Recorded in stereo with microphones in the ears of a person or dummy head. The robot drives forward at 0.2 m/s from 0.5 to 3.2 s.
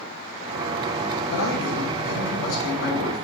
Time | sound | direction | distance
1.3 | a man speaking | 70° left (ahead or behind) | 1.7 m